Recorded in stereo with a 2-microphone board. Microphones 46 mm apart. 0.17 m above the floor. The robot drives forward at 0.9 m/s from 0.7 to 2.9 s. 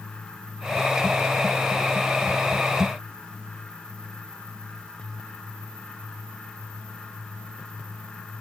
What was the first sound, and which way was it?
Only background noise.